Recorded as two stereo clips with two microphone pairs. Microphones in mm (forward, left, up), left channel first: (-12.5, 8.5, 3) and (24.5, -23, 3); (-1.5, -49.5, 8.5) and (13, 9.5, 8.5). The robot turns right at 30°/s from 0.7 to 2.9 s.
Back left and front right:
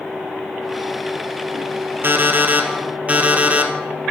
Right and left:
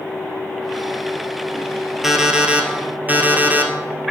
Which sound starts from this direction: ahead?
An alarm clock, at 2.0 s.